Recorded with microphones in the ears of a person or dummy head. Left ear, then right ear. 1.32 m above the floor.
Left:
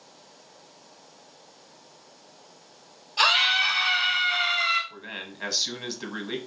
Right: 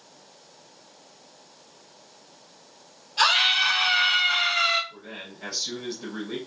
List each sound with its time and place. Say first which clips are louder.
3.2 s a scream: even; 15° left (ahead or behind), 0.8 m; by 4.8 s 75° right (ahead or behind), 0.9 m
4.9 s a man speaking: left 3 dB; 55° left (ahead or behind), 1.1 m